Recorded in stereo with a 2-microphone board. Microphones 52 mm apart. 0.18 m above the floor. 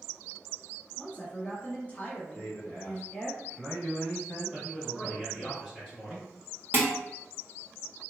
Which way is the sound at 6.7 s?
35° right (ahead or behind).